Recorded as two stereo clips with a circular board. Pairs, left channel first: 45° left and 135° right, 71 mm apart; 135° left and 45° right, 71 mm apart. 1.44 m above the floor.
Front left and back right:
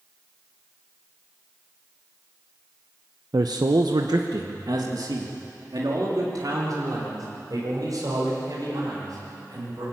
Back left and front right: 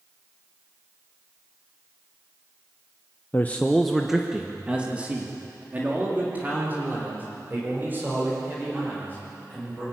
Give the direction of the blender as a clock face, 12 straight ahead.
I don't hear a blender.